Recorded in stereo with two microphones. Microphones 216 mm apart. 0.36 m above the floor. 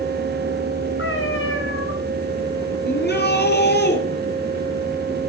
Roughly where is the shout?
Left.